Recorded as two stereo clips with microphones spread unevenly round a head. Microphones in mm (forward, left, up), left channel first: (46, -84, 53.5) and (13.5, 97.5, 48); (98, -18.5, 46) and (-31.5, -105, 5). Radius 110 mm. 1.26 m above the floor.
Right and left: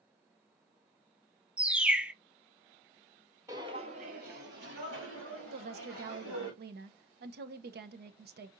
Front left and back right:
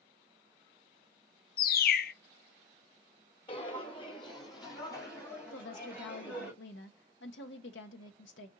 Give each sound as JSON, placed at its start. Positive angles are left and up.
{"t": 1.6, "sound": "a bird", "azimuth_deg": 15, "distance_m": 0.5}
{"t": 3.5, "sound": "footsteps", "azimuth_deg": 30, "distance_m": 1.7}
{"t": 5.5, "sound": "a woman speaking", "azimuth_deg": 65, "distance_m": 0.7}